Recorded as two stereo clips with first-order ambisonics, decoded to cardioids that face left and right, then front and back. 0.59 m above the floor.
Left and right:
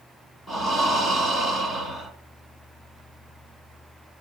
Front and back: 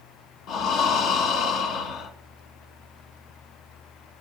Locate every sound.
0.5 s breathing: 10° left, 1.7 m